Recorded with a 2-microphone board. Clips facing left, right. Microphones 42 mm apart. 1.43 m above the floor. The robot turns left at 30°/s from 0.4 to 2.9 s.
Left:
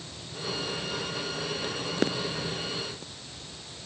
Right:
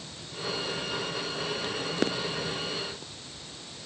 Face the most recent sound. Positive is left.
No sound to turn to.